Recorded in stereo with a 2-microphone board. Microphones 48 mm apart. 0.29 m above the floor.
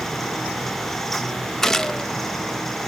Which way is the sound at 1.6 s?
10° left (ahead or behind).